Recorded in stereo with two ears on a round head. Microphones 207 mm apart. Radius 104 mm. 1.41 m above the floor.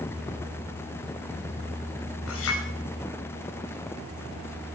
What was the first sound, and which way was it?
A clink, 65° left (ahead or behind).